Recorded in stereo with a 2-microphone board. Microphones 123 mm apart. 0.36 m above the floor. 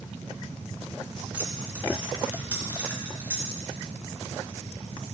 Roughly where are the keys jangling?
Centre.